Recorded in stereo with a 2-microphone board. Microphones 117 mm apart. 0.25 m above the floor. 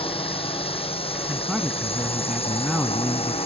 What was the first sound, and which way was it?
A drone, 50° left (ahead or behind).